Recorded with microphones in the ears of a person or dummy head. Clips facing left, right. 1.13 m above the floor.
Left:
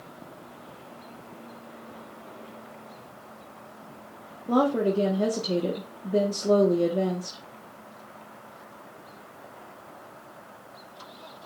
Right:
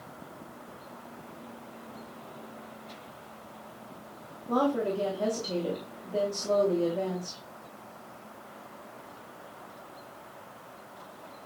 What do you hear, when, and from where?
4.5 s a woman speaking: 45° left (ahead or behind), 0.9 m